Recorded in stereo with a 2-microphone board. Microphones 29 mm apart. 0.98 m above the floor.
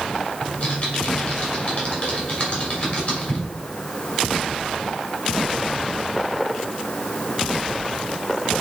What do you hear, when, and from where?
0.4 s typing on a keyboard: 50° left (ahead or behind), 3.5 m